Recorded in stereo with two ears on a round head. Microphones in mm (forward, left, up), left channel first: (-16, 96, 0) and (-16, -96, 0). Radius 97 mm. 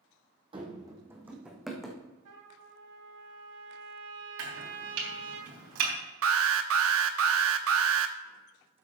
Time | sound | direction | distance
0.5 | running footsteps | 25° right (ahead or behind) | 1.5 m
2.2 | a trumpet | 80° right | 2 m
4.4 | chopping | 80° right | 3.5 m
6.2 | an alarm | 70° right (ahead or behind) | 0.9 m